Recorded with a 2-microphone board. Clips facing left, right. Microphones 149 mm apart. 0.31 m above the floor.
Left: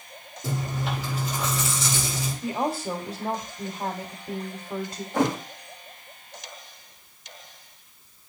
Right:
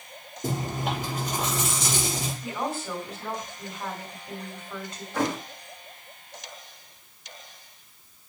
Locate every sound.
0.4 s chewing: 50° right (ahead or behind), 5.5 m
2.4 s a woman speaking: 35° left (ahead or behind), 1.5 m
5.1 s a thud: 20° left (ahead or behind), 4 m